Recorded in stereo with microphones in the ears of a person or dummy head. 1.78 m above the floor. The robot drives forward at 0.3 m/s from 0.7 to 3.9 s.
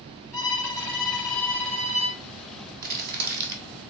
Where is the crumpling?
50° right (ahead or behind), 1.2 m; by 3.6 s 55° right (ahead or behind), 1.1 m.